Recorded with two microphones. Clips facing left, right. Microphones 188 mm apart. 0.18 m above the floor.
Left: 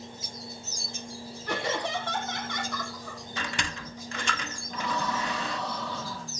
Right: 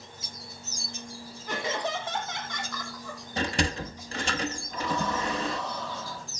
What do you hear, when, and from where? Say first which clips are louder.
1.5 s laughter: left 1 dB; 75° left (ahead or behind), 7.5 m; by 4.4 s 55° left (ahead or behind), 10.5 m
3.4 s a sliding door: right 9 dB; 35° right (ahead or behind), 1.1 m
4.7 s breathing: left 1 dB; 75° left (ahead or behind), 7 m